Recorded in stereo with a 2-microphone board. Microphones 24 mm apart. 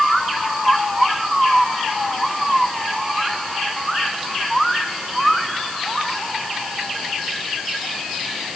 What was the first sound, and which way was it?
Only background noise.